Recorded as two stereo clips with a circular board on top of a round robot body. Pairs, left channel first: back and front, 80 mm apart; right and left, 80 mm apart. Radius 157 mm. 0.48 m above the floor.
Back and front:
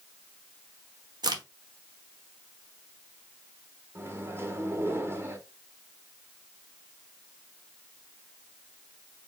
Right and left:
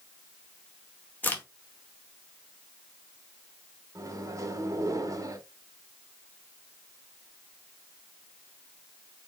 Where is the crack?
25° right, 1.0 m.